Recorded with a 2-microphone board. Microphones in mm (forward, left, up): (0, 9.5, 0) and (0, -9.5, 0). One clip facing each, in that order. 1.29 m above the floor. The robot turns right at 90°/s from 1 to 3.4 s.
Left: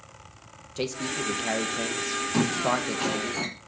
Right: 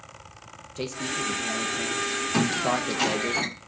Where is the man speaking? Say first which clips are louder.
Even; 15° left (ahead or behind), 0.9 m; by 3.3 s 45° right (ahead or behind), 0.9 m.